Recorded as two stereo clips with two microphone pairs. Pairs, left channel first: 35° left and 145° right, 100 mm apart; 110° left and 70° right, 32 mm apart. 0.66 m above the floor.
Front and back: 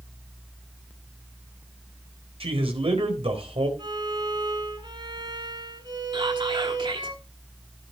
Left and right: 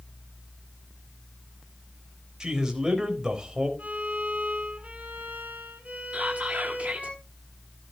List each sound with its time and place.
2.4 s a man speaking: 140° right, 4 m
3.8 s a violin: 110° right, 6.5 m
6.1 s whispering: 115° right, 6 m